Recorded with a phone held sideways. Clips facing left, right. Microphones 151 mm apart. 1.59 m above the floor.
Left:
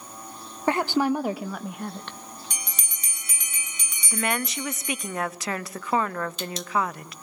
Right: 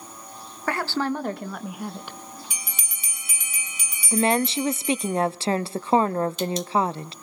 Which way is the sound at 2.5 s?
5° right (ahead or behind).